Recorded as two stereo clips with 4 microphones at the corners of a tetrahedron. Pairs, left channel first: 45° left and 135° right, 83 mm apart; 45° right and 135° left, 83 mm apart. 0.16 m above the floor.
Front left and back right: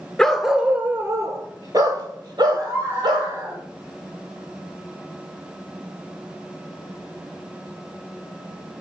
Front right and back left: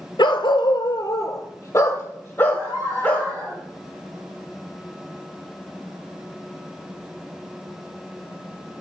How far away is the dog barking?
About 0.7 m.